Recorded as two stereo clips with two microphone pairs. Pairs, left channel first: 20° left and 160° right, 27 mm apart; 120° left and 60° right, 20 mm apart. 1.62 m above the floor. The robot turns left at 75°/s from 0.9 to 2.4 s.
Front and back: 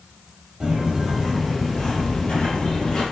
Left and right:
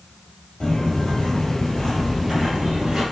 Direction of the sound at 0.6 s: 150° left.